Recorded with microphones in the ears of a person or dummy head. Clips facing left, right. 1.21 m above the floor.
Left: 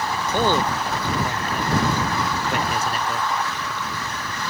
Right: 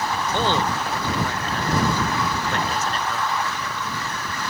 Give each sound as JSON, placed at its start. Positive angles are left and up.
{"t": 0.3, "sound": "a man speaking", "side_deg": 10}